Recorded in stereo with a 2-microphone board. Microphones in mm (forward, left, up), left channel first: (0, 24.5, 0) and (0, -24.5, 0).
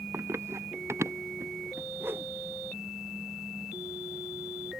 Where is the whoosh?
55° right (ahead or behind).